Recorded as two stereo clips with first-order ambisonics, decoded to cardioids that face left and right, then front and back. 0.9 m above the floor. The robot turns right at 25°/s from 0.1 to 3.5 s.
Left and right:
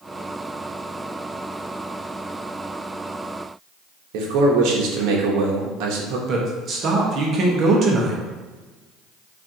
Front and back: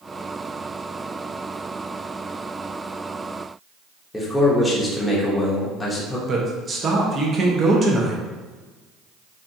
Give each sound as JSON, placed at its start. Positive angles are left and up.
{"t": 4.1, "sound": "a man speaking", "azimuth_deg": -80, "distance_m": 0.7}
{"t": 6.3, "sound": "a man speaking", "azimuth_deg": -125, "distance_m": 0.7}